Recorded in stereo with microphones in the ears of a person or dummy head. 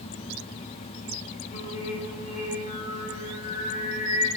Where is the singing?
35° left (ahead or behind), 3.5 m.